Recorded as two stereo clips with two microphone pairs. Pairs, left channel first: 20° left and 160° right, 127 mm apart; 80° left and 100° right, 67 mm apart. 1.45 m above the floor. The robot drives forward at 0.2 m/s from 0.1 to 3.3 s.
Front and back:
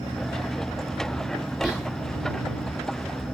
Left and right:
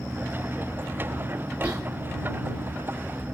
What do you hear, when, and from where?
1.6 s whispering: 95° left, 1.1 m